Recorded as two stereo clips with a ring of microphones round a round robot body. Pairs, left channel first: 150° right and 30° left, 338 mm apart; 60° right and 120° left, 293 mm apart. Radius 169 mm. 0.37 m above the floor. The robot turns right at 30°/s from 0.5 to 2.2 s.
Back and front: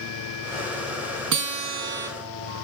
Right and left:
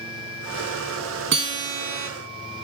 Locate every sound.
1.3 s a guitar: 70° left, 2.0 m; by 2.1 s 95° left, 2.0 m